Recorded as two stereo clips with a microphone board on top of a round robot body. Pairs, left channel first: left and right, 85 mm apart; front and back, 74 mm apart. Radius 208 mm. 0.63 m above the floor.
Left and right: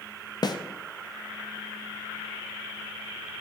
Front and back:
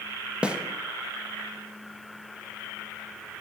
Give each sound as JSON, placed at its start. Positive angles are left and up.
{"t": 0.4, "sound": "a snare drum", "azimuth_deg": 110, "distance_m": 1.0}